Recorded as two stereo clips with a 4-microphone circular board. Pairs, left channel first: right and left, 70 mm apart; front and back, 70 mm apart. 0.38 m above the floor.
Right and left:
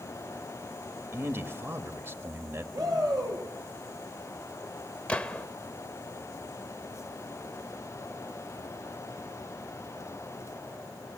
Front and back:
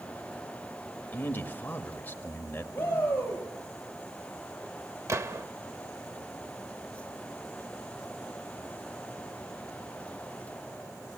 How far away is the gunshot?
About 0.8 m.